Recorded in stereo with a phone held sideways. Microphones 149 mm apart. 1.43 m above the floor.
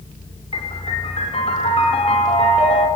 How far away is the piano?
About 5 m.